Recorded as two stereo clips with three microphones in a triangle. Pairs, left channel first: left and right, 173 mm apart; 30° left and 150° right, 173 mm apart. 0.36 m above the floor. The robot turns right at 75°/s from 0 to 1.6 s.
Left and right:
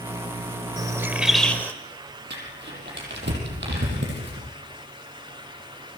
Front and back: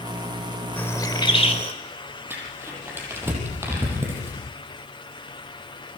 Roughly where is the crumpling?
Right.